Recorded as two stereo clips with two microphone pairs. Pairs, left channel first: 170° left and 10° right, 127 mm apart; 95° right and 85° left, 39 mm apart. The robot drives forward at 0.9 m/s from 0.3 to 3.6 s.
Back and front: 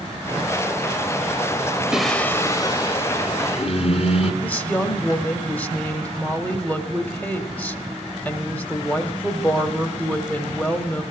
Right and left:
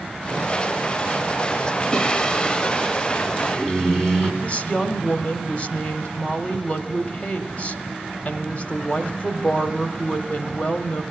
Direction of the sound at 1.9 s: 85° right.